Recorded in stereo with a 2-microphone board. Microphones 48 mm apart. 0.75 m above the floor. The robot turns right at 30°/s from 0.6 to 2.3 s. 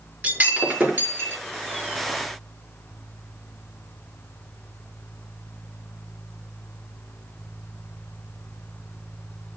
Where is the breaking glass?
35° right (ahead or behind), 5.5 m; by 1.4 s 60° right (ahead or behind), 5.5 m.